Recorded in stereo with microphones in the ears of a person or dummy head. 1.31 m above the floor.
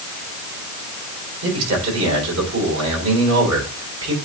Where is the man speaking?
85° right, 6.5 m.